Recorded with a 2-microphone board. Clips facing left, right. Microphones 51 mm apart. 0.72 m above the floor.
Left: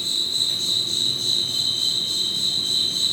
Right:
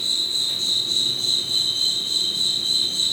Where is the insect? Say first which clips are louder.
Even; 55° left (ahead or behind), 0.8 m.